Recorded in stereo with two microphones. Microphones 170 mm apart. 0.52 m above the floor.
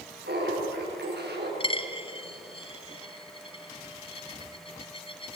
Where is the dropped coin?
30° left (ahead or behind), 1.8 m.